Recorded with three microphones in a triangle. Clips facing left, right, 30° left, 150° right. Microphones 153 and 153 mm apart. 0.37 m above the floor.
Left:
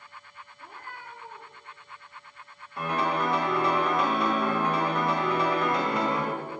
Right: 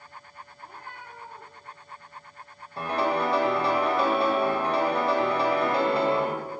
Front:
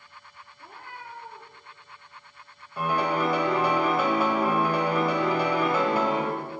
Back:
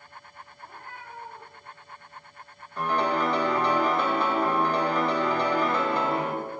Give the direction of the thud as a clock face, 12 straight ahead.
No thud in this recording.